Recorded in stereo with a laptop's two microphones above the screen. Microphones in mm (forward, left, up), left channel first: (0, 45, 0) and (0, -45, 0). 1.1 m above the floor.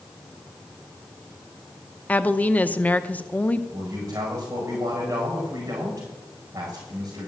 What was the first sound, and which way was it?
A woman speaking, 20° left (ahead or behind).